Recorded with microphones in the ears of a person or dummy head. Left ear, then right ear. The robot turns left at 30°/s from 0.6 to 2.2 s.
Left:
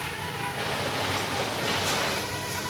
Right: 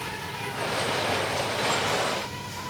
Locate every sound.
0.0 s an insect: 155° left, 1.0 m; by 2.7 s 105° left, 1.0 m